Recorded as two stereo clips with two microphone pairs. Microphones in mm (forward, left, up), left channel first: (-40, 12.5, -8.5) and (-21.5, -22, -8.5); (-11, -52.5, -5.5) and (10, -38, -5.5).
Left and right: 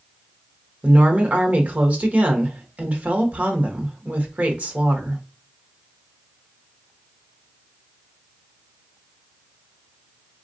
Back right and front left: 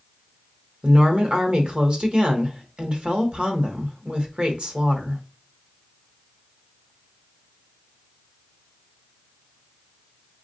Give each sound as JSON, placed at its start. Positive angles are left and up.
{"t": 0.8, "sound": "a woman speaking", "azimuth_deg": -15, "distance_m": 0.9}